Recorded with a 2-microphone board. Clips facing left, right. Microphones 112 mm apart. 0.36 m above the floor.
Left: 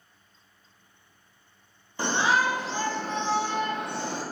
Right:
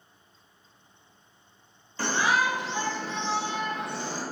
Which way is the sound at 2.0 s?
20° left (ahead or behind).